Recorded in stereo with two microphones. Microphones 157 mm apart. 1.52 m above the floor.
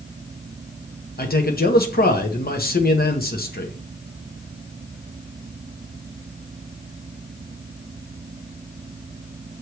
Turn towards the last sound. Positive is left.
turn(degrees=75)  # may be behind; listen again after turning